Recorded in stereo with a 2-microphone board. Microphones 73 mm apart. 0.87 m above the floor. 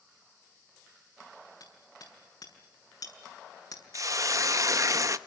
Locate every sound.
1.6 s hammering: 65° left (ahead or behind), 7 m
3.9 s a hiss: 50° right (ahead or behind), 0.7 m